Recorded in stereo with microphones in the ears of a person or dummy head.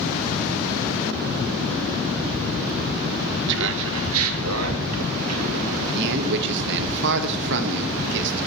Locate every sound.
3.5 s laughter: 65° right (ahead or behind), 1.2 m; by 5.8 s 85° right, 3.5 m
6.0 s a man speaking: 65° right (ahead or behind), 1.2 m